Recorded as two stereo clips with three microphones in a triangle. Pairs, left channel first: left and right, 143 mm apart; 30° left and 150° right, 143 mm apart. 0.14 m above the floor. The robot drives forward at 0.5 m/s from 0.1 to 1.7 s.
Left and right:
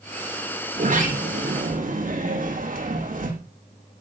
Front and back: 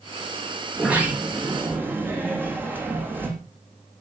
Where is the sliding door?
70° right, 6 m; by 3.3 s 75° right, 6 m.